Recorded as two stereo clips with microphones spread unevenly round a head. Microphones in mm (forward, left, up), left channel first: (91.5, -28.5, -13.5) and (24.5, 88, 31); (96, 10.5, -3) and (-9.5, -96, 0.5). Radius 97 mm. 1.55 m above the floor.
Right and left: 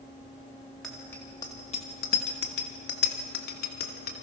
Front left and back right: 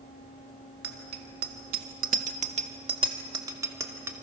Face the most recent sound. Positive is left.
turn(degrees=-60)